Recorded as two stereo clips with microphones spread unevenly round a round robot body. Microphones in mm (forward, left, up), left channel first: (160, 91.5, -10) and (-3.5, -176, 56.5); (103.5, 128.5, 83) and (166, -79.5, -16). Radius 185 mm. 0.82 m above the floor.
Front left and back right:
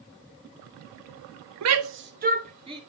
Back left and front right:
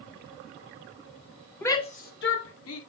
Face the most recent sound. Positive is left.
turn(degrees=155)